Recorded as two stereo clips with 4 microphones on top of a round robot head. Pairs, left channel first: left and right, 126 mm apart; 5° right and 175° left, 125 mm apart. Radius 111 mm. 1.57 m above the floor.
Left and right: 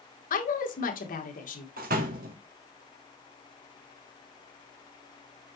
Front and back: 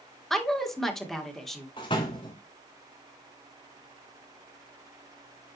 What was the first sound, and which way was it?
A woman speaking, 80° left.